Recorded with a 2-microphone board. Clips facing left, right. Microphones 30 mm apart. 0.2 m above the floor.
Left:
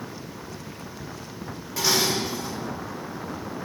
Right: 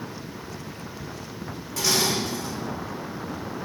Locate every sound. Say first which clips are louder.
1.8 s dishes clattering: left 1 dB; 10° left (ahead or behind), 2 m